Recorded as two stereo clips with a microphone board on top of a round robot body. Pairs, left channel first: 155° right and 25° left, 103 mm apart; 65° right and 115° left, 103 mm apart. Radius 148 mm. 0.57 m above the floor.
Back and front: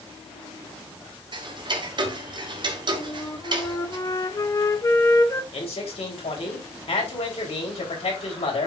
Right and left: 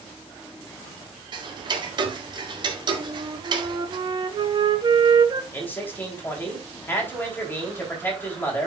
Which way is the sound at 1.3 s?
65° left.